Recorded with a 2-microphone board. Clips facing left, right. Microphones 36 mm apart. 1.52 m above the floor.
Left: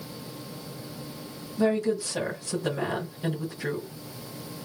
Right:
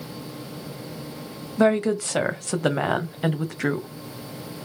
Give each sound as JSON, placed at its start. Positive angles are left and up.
{"t": 1.6, "sound": "a woman speaking", "side_deg": -75, "distance_m": 1.1}